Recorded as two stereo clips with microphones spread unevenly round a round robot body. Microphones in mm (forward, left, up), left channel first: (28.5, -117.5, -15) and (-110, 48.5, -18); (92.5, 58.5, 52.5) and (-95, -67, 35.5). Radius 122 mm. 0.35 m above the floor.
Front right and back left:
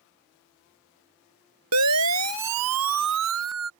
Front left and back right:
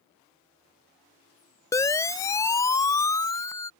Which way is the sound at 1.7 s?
110° left.